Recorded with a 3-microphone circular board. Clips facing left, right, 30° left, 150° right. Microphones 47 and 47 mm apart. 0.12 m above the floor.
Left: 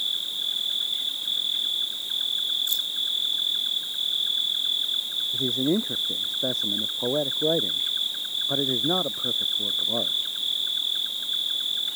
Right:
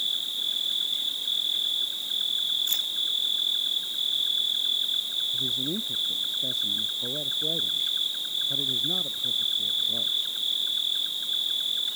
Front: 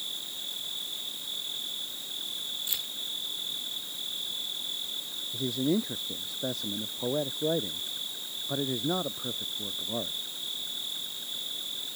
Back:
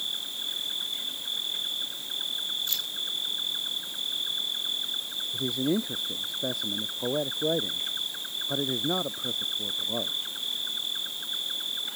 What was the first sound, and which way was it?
An insect, 170° left.